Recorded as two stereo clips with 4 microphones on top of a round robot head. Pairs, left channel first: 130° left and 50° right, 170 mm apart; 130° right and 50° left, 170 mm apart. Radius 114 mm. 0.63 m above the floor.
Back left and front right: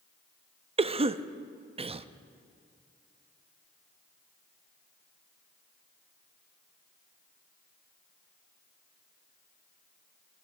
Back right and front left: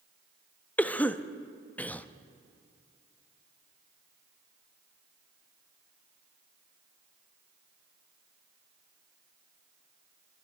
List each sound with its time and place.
0.8 s a cough: 60° right, 0.5 m